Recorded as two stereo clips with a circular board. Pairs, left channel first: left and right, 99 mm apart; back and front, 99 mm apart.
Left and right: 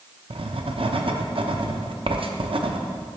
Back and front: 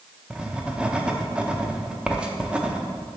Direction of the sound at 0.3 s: 80° right.